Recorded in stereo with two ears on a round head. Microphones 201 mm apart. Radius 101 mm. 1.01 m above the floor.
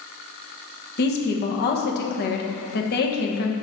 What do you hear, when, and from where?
1.0 s a woman speaking: 45° left (ahead or behind), 1.0 m